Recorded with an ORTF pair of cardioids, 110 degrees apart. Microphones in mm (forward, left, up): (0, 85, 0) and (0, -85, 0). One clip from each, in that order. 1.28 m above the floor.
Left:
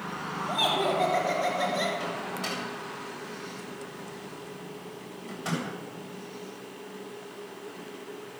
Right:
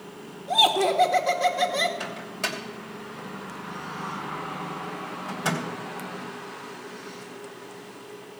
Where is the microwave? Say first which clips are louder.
Right 2 dB; 65° right, 3 m.